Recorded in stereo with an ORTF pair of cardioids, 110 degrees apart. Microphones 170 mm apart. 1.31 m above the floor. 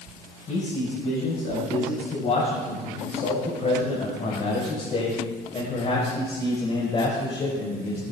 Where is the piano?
No piano in this recording.